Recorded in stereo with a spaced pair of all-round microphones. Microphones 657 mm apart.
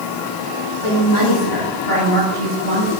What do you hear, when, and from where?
0.8 s a woman speaking: 70° left (ahead or behind), 7.5 m; by 2.9 s 85° left, 7.5 m